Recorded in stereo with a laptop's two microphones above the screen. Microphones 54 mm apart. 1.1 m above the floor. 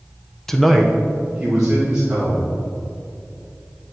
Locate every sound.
0.5 s a man speaking: 5° left (ahead or behind), 0.5 m; by 2.5 s 10° right (ahead or behind), 1.9 m